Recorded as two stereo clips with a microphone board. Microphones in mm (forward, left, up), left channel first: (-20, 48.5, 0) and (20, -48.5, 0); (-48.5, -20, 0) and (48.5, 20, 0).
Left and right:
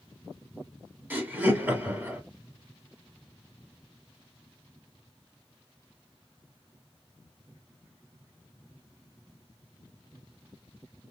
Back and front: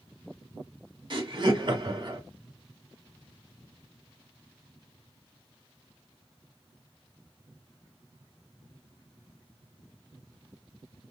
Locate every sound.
1.1 s laughter: straight ahead, 1.6 m